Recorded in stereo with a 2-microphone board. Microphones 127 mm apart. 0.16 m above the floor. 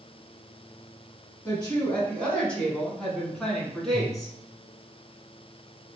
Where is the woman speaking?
10° left (ahead or behind), 1.2 m; by 4.3 s centre (ahead or behind), 1.6 m.